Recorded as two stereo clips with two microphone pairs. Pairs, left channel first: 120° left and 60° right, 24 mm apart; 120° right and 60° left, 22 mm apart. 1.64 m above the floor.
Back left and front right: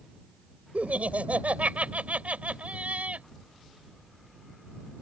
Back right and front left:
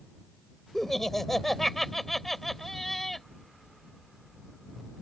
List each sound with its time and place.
0.7 s laughter: 45° right